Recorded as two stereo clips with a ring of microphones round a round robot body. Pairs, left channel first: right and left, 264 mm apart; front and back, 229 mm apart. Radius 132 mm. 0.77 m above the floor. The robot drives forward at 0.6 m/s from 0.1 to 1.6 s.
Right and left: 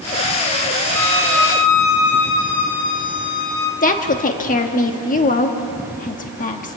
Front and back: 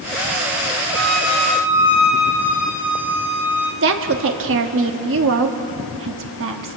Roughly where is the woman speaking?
Behind right.